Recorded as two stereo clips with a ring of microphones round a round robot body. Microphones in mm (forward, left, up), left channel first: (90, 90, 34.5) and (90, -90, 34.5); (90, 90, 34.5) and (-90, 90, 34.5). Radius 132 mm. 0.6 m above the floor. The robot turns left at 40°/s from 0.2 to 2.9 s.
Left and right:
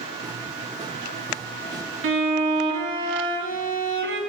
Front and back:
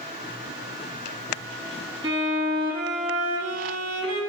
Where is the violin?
105° right, 1.2 m; by 4.2 s 140° right, 1.2 m.